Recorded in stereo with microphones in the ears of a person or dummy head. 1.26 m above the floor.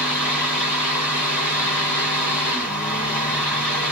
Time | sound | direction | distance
0.0 | a fan | 15° left (ahead or behind) | 1.5 m